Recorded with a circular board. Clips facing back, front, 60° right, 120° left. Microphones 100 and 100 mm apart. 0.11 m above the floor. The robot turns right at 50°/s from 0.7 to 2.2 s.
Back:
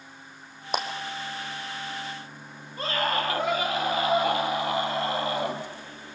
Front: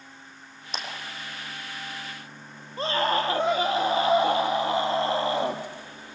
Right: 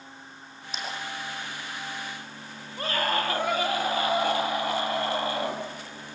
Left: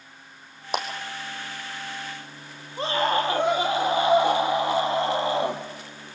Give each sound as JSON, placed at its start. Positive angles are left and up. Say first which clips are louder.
{"t": 0.7, "sound": "a clap", "louder": "back 8 dB, left 11 dB", "azimuth_deg": 150, "distance_m": 3.5}
{"t": 2.8, "sound": "a scream", "louder": "front 3 dB, left 4 dB", "azimuth_deg": 55, "distance_m": 3.5}